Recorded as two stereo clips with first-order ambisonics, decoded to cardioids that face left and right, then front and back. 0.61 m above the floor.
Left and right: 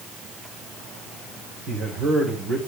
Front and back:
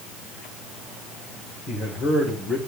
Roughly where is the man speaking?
Ahead right.